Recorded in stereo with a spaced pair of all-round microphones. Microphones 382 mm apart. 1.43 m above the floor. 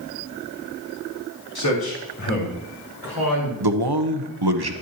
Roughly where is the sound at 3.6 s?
Right.